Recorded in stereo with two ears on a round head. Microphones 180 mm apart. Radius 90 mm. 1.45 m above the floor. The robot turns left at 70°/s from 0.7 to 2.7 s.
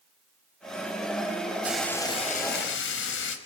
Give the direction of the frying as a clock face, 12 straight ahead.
6 o'clock.